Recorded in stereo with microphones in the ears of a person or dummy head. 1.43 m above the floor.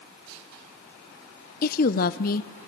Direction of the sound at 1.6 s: 50° left (ahead or behind).